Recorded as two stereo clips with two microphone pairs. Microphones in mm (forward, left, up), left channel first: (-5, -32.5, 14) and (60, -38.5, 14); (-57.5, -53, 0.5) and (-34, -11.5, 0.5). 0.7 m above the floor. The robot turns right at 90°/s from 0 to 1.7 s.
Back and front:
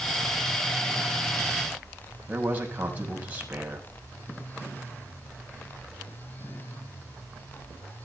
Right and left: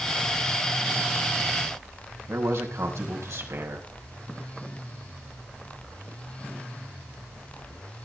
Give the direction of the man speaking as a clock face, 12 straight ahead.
10 o'clock.